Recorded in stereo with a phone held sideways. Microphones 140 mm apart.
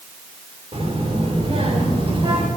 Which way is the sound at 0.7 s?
50° right (ahead or behind).